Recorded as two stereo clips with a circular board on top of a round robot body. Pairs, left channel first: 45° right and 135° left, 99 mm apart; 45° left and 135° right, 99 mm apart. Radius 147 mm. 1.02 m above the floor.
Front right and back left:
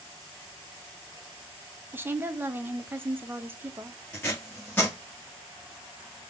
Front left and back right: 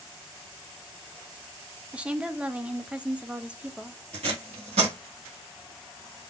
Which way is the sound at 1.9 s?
165° left.